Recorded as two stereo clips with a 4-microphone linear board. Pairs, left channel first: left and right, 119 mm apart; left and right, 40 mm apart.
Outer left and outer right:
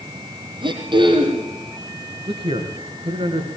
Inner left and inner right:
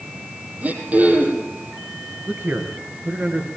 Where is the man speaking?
50° right (ahead or behind), 3.5 m.